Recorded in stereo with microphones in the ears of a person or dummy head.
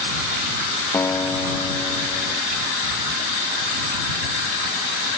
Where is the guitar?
10° left (ahead or behind).